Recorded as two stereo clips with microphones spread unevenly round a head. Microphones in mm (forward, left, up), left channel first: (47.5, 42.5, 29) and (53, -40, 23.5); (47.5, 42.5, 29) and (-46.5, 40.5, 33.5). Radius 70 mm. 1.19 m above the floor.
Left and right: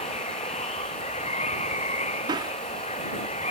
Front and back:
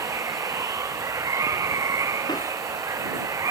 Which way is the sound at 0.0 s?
125° left.